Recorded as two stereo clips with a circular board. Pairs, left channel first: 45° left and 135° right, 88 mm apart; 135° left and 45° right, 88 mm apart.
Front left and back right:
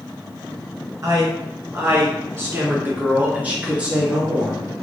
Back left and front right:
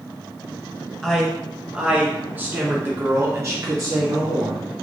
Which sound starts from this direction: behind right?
A man speaking, at 1.0 s.